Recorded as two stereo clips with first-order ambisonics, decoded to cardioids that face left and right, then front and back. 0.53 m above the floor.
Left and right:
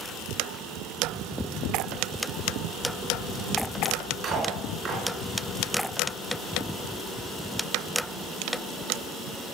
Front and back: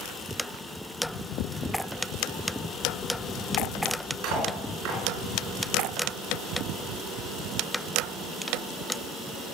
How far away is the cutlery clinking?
About 3.5 m.